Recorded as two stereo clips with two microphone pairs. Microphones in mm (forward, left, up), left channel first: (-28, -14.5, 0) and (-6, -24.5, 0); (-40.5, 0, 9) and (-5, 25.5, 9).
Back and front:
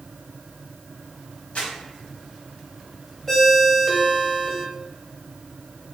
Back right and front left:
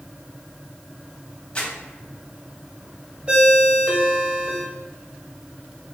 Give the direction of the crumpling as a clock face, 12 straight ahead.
7 o'clock.